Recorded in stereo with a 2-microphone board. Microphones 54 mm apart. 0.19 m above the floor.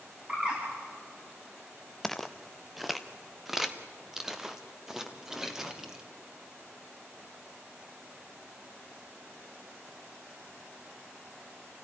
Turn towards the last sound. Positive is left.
turn(degrees=-10)  # may be behind; listen again after turning